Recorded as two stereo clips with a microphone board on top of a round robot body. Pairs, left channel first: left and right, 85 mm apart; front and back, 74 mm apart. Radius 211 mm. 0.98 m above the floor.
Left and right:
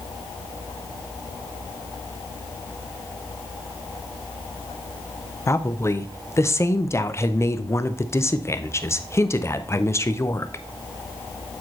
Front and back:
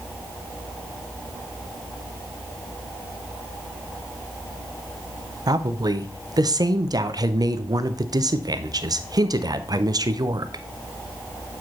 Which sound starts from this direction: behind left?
A woman speaking, at 5.5 s.